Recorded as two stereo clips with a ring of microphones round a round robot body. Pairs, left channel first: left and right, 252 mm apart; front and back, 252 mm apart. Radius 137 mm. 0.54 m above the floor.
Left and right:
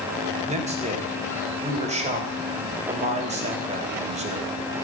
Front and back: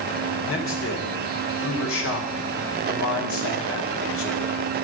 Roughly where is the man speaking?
Ahead right.